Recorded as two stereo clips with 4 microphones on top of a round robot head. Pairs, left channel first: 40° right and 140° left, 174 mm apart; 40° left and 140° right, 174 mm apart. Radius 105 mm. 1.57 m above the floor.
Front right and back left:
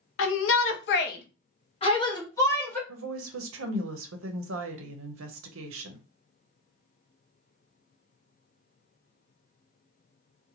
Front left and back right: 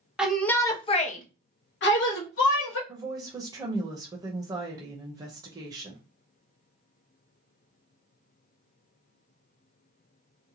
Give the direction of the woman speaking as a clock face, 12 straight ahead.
7 o'clock.